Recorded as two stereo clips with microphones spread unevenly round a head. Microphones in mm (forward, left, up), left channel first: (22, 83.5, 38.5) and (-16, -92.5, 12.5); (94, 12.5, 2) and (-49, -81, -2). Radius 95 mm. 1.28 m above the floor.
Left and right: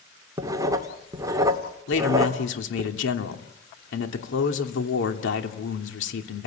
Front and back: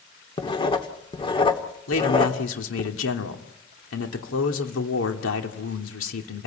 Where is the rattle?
I don't hear a rattle.